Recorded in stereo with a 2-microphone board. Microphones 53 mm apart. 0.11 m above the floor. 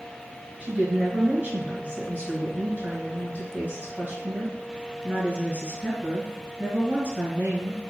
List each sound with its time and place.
0.6 s a woman speaking: 30° right (ahead or behind), 1.9 m